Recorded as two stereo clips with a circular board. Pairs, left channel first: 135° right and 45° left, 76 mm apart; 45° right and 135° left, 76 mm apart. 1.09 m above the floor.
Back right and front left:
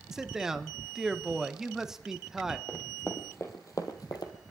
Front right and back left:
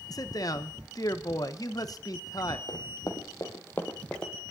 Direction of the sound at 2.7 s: 65° right.